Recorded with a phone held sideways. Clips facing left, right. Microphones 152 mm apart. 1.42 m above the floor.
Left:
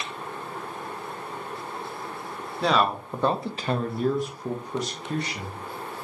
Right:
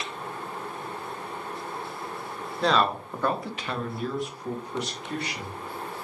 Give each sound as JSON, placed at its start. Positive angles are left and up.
{"t": 2.6, "sound": "a man speaking", "side_deg": 5, "distance_m": 0.7}